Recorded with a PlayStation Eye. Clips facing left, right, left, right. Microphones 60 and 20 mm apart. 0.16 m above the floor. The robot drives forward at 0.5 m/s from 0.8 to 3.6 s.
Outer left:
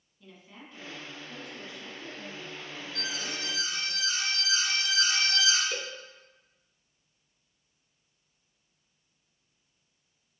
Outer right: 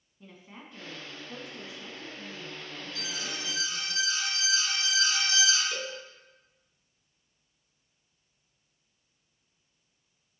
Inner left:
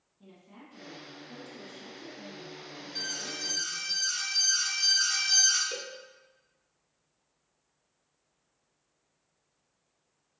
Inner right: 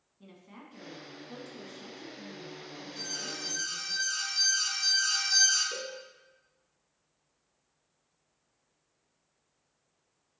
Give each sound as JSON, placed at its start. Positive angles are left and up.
{"t": 0.2, "sound": "a woman speaking", "side_deg": -25, "distance_m": 1.1}
{"t": 3.0, "sound": "an alarm", "side_deg": 45, "distance_m": 2.5}
{"t": 5.7, "sound": "a cowbell", "side_deg": 15, "distance_m": 0.6}